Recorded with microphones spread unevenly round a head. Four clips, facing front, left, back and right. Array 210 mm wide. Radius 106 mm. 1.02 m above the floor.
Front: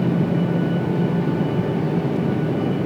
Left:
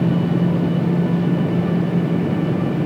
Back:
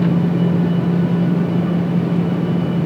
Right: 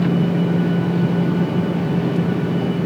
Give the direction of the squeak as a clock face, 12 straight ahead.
I don't hear a squeak.